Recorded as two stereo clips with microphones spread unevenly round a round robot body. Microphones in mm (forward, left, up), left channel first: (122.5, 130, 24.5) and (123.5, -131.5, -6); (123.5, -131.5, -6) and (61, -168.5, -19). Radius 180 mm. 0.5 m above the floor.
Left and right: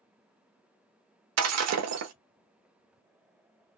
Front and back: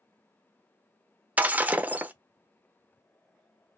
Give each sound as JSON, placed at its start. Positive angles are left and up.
{"t": 1.4, "sound": "breaking glass", "azimuth_deg": -85, "distance_m": 0.7}